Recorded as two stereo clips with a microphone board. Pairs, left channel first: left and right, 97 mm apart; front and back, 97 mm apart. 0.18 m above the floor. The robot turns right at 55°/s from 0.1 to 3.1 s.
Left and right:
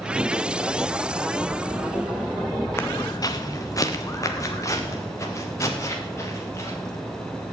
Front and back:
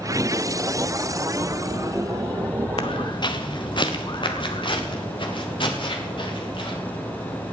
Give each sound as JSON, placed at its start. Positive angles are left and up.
{"t": 2.8, "sound": "footsteps", "azimuth_deg": 25, "distance_m": 1.2}